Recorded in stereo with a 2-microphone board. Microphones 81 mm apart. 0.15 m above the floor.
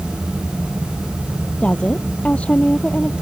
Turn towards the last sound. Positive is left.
turn(degrees=15)  # may be behind; listen again after turning